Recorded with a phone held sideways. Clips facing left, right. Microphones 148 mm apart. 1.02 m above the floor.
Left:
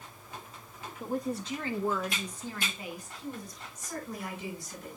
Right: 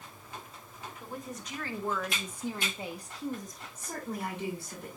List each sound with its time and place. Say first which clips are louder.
1.0 s a woman speaking: left 10 dB; 45° left (ahead or behind), 1.6 m; by 3.6 s 50° right (ahead or behind), 2.0 m
3.8 s a woman speaking: right 2 dB; 65° right (ahead or behind), 6.5 m